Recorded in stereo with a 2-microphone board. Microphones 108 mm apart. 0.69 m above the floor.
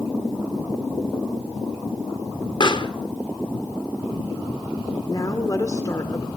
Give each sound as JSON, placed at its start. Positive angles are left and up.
{"t": 2.6, "sound": "a pop", "side_deg": 45, "distance_m": 1.1}
{"t": 5.1, "sound": "a woman speaking", "side_deg": 35, "distance_m": 2.5}